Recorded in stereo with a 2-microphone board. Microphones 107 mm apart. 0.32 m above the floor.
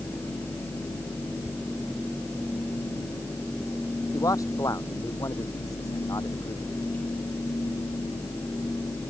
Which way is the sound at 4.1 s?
30° left (ahead or behind).